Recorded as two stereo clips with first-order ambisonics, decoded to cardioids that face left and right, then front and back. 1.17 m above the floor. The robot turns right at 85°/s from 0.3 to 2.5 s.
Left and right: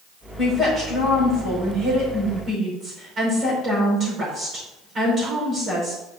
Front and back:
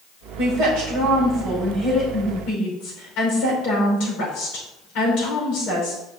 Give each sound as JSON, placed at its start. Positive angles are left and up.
{"t": 0.4, "sound": "a woman speaking", "azimuth_deg": 155, "distance_m": 4.5}